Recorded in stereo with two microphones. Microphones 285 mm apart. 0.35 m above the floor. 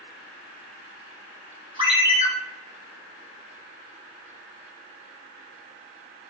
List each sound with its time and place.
1.8 s a ringtone: 20° right (ahead or behind), 0.5 m